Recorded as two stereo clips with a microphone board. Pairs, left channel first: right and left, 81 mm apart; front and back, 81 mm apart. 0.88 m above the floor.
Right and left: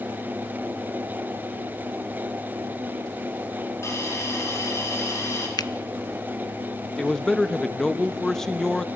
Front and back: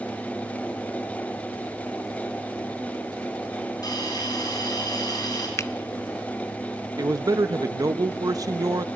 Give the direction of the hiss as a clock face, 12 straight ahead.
1 o'clock.